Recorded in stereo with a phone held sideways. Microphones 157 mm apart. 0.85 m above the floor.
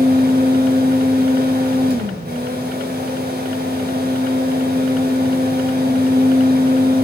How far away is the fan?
About 2.5 m.